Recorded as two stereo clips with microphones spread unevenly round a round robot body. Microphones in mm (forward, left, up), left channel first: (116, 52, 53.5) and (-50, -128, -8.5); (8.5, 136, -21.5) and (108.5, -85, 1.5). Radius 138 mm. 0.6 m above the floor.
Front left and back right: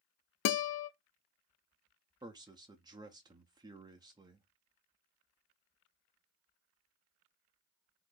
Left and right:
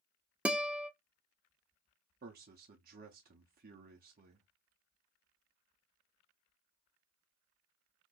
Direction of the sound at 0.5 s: 25° left.